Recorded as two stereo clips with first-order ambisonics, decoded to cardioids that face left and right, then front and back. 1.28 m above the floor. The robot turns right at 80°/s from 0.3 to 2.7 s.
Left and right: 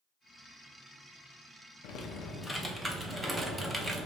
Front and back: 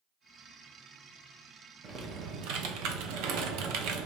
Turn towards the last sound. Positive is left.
turn(degrees=-175)